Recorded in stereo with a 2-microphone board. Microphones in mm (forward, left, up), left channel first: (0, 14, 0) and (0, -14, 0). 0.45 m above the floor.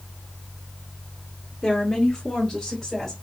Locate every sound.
1.6 s a woman speaking: 20° left (ahead or behind), 1.0 m; by 3.1 s 10° left (ahead or behind), 1.9 m